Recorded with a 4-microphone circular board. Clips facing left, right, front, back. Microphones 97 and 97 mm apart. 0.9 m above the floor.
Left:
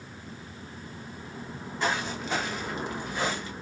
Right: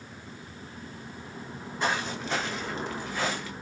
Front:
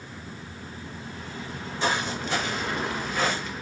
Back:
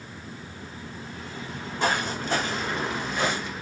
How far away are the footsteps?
About 1.2 m.